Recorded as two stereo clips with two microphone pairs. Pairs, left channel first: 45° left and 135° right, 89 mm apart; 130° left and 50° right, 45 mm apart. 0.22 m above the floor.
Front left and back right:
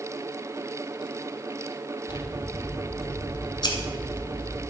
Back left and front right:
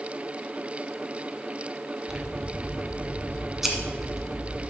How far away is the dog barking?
No dog barking in this recording.